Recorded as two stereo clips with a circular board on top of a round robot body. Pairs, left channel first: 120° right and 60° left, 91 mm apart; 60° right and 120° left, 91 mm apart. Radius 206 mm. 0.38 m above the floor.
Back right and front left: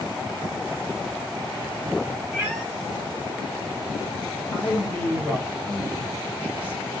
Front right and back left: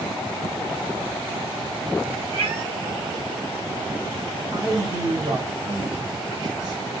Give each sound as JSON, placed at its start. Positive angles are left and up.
{"t": 2.3, "sound": "a cat meowing", "azimuth_deg": 135, "distance_m": 1.9}
{"t": 4.5, "sound": "a man speaking", "azimuth_deg": 160, "distance_m": 3.0}